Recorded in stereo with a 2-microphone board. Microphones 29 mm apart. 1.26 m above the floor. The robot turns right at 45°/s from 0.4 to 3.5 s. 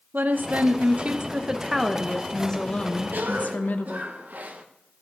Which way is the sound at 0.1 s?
70° right.